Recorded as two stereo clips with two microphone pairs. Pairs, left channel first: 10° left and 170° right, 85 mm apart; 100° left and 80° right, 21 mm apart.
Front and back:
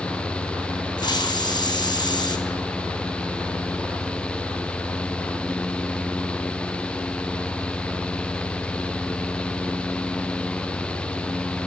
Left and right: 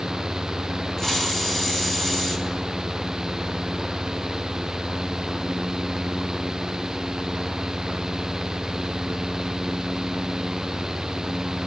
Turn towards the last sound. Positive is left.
turn(degrees=30)